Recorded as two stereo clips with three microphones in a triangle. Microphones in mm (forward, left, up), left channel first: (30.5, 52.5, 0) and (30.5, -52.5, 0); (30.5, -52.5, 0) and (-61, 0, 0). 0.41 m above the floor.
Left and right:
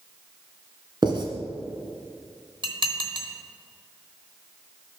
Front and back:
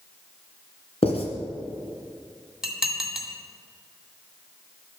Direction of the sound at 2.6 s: 125° right.